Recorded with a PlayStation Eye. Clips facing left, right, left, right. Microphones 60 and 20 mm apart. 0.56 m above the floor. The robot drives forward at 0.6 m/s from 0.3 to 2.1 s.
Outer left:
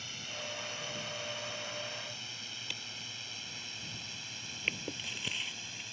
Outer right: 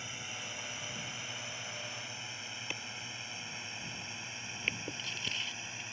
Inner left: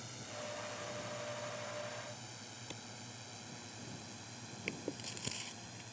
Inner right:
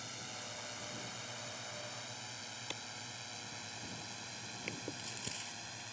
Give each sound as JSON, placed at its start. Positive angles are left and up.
{"t": 0.0, "sound": "a drone", "side_deg": -20}
{"t": 2.7, "sound": "a clap", "side_deg": -30}
{"t": 4.7, "sound": "chewing", "side_deg": 5}